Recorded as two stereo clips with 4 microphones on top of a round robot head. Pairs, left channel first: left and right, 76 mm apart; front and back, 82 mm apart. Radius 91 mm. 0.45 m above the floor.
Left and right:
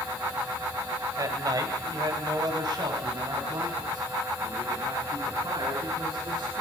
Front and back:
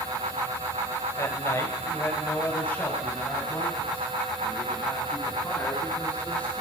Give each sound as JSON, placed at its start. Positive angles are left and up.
{"t": 1.2, "sound": "a man speaking", "azimuth_deg": -55, "distance_m": 3.0}